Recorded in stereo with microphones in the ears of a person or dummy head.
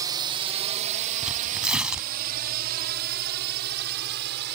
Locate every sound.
0.0 s a drone: 20° right (ahead or behind); by 4.6 s 65° right (ahead or behind)
1.2 s tearing paper: 5° right (ahead or behind)